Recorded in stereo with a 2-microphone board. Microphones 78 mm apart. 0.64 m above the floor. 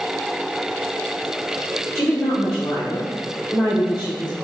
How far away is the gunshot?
No gunshot in this recording.